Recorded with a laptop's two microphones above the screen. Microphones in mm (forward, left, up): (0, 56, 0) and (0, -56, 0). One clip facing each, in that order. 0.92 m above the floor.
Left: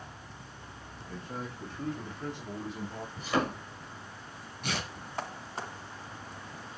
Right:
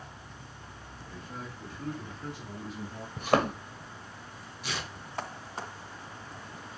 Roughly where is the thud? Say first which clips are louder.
Right 4 dB; right.